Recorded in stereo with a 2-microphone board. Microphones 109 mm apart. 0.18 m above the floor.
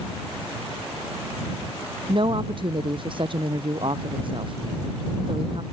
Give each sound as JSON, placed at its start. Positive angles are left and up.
{"t": 2.1, "sound": "a woman speaking", "side_deg": -50}